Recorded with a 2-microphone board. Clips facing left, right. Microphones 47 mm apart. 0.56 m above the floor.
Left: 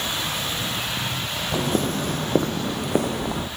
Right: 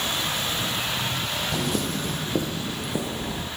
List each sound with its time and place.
1.5 s footsteps: 30° left (ahead or behind), 0.8 m; by 3.5 s 75° left (ahead or behind), 1.8 m